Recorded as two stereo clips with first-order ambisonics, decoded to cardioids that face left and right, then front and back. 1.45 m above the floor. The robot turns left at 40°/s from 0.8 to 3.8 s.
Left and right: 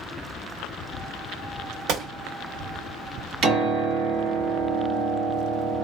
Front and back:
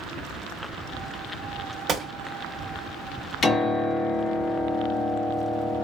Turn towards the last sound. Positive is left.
turn(degrees=-75)